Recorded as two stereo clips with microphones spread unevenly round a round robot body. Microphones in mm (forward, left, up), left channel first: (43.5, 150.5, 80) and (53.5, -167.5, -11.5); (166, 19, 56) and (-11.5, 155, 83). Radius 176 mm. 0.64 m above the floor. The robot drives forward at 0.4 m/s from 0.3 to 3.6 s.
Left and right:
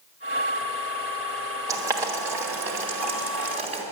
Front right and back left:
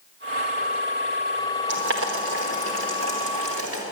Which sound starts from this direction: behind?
Boiling, at 1.7 s.